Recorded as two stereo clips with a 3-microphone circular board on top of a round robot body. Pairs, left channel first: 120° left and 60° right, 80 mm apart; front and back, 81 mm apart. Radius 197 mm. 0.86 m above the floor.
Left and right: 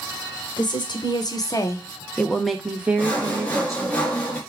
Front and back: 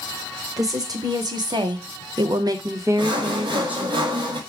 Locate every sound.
0.6 s a woman speaking: 135° left, 1.4 m; by 4.0 s 105° right, 1.4 m
3.0 s sawing: 165° right, 1.1 m